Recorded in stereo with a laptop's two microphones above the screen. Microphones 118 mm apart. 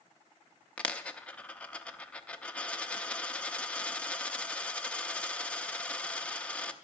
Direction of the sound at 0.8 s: 10° left (ahead or behind).